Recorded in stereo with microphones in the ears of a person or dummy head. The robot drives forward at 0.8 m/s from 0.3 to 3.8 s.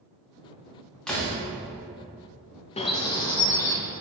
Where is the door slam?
Centre (ahead or behind), 2.5 m.